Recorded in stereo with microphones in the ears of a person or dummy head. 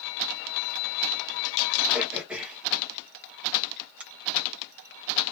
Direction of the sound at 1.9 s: 5° right (ahead or behind).